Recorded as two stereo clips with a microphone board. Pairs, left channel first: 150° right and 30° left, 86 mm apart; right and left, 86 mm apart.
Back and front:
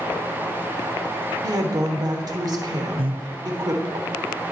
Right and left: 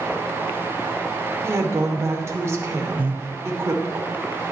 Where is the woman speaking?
45° left, 1.0 m.